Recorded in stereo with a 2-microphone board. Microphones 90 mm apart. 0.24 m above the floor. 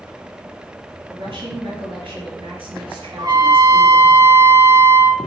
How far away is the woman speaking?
About 3 m.